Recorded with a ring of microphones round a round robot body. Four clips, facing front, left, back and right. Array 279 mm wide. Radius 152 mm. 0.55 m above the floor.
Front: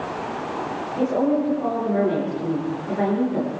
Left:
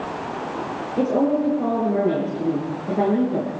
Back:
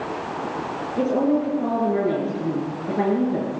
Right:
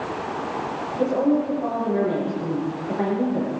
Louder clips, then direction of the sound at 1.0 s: Left 1 dB, even; 125° left.